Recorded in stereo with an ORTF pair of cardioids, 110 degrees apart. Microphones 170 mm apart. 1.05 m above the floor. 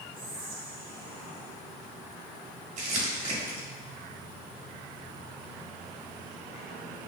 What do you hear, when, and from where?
0.1 s whispering: 35° right, 1.5 m
2.8 s crumpling: 45° right, 1.3 m